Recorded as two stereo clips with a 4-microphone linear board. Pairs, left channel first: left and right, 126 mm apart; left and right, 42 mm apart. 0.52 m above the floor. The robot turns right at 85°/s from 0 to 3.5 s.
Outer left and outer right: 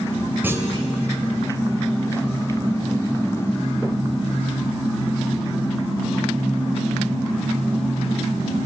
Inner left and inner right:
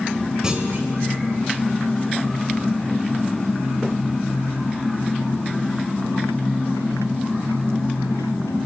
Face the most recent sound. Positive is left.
turn(degrees=95)